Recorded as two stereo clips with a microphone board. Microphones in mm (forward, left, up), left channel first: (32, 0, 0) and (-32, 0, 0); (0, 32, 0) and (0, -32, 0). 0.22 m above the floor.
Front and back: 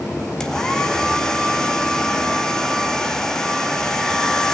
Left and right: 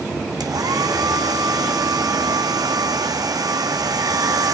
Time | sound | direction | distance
0.4 | a hair dryer | 80° right | 2 m